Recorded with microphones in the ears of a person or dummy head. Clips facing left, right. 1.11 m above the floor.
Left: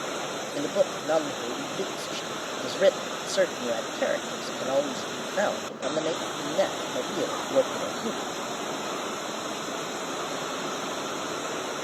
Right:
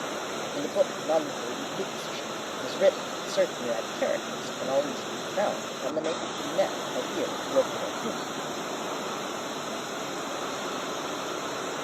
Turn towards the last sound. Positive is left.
turn(degrees=5)  # may be behind; listen again after turning